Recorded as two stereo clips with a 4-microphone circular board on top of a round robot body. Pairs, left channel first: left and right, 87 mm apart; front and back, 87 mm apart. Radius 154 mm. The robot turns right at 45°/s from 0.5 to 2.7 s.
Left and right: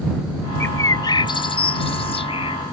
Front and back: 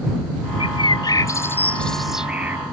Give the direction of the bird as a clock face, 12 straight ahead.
11 o'clock.